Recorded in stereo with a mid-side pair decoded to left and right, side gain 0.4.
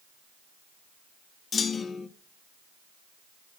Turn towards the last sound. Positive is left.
turn(degrees=50)